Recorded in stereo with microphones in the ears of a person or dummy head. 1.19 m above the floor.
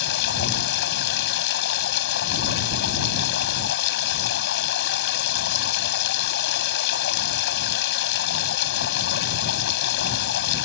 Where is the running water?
65° left (ahead or behind).